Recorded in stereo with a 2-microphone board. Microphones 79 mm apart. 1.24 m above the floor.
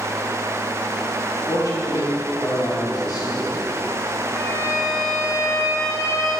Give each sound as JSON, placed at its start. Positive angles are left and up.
{"t": 1.5, "sound": "a man speaking", "side_deg": 55, "distance_m": 3.5}
{"t": 4.3, "sound": "a violin", "side_deg": 50, "distance_m": 3.5}